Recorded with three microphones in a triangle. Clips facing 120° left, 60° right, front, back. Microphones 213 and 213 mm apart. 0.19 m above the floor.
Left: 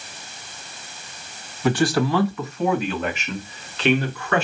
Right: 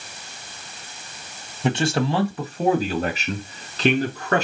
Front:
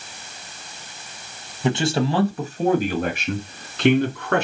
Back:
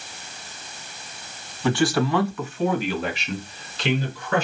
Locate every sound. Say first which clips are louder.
1.6 s a man speaking: left 2 dB, even; 40° right, 1.4 m; by 4.5 s 10° right, 2.5 m